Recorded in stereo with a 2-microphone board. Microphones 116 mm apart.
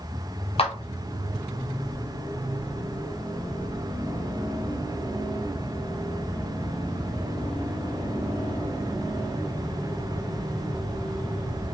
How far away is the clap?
About 0.5 m.